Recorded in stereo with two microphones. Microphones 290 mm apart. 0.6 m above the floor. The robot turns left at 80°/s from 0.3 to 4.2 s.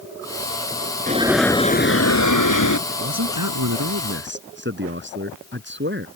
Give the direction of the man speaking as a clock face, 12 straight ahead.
1 o'clock.